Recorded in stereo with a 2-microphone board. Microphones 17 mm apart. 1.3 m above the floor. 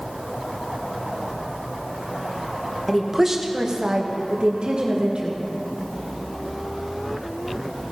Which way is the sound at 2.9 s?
Centre (ahead or behind).